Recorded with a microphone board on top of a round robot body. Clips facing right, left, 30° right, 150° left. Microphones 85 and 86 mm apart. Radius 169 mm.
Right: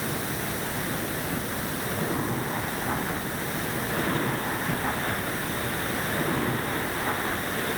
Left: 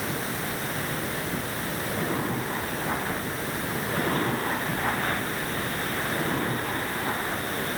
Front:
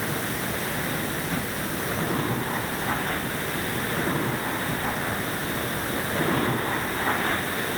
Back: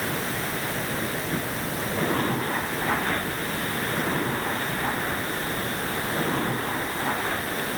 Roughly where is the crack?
I don't hear a crack.